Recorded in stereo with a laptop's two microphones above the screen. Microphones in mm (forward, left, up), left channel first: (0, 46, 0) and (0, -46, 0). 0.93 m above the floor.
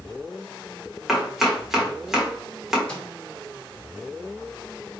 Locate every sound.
1.1 s chopping: 5° right (ahead or behind), 1.4 m
2.9 s a microwave: 15° left (ahead or behind), 1.6 m